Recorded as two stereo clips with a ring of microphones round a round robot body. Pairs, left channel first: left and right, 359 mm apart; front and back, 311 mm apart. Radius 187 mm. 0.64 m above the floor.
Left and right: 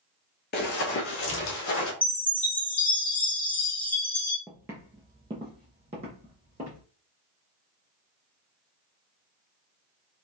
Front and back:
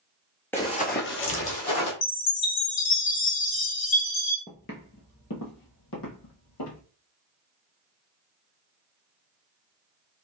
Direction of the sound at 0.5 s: 75° left.